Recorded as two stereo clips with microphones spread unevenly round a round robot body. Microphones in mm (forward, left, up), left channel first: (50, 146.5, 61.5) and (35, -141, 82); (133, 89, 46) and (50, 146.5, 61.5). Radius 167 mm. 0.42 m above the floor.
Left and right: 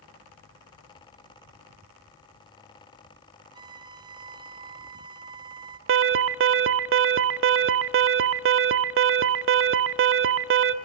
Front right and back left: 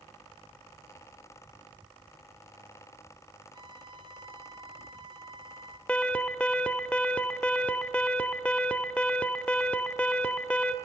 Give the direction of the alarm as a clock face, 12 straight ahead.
3 o'clock.